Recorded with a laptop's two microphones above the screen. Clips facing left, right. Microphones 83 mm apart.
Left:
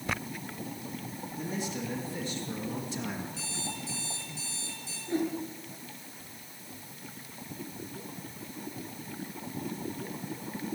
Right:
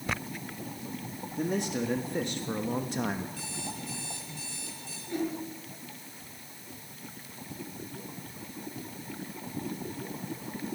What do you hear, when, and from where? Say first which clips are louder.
1.4 s a man speaking: right 6 dB; 70° right (ahead or behind), 2 m; by 3.3 s 50° right (ahead or behind), 1.3 m
3.4 s an alarm clock: even; 55° right (ahead or behind), 6 m
5.1 s a whoosh: left 2 dB; 30° left (ahead or behind), 5 m